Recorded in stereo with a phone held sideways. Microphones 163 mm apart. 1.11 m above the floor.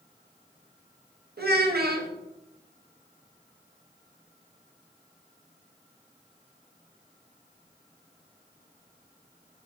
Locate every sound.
1.4 s a child speaking: 80° right, 0.8 m